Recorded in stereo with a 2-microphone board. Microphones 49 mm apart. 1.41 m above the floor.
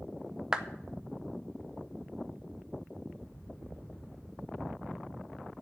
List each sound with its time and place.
0.5 s a clap: 15° right (ahead or behind), 0.7 m